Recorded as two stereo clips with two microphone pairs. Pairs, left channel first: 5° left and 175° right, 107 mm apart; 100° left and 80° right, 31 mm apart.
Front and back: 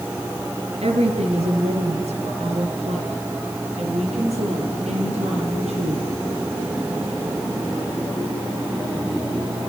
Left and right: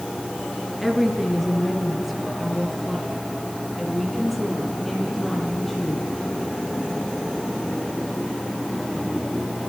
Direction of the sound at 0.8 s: 165° right.